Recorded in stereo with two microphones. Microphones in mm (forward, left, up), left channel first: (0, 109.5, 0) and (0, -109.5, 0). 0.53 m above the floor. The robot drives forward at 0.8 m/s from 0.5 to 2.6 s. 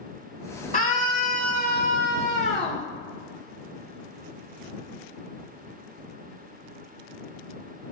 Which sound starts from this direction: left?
A scream, at 0.7 s.